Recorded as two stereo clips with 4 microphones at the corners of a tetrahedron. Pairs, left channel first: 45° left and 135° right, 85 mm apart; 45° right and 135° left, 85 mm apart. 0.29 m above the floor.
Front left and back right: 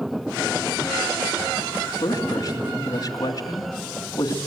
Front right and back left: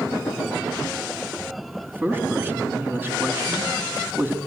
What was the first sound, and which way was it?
A man speaking, 75° left.